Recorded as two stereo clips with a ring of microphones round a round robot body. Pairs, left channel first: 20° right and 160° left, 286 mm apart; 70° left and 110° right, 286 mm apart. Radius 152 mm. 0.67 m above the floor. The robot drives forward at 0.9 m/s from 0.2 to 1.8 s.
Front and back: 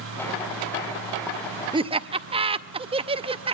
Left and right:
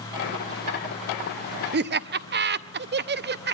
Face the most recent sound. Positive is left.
turn(degrees=-140)